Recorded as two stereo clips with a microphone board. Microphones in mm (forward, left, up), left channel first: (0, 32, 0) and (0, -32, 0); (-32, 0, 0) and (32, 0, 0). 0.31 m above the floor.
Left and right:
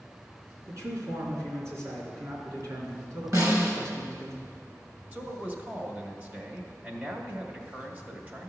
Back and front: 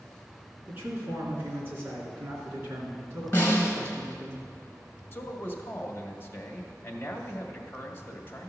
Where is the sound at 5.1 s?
140° right, 1.4 m.